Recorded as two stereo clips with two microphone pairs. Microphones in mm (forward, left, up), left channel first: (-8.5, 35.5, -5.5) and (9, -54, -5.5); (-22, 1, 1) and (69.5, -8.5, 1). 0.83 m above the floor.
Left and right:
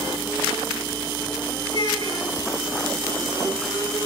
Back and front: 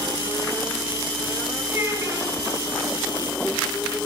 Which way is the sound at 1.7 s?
70° left.